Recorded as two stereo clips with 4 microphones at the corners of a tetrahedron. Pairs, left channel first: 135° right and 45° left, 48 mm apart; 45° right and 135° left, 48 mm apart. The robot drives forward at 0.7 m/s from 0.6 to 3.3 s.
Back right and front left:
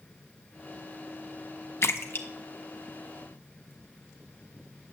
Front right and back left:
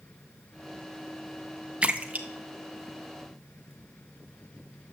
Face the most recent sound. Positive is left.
turn(degrees=-175)